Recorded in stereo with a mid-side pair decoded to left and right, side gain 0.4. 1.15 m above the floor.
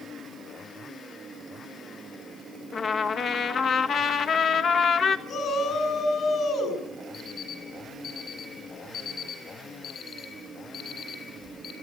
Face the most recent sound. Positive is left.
turn(degrees=65)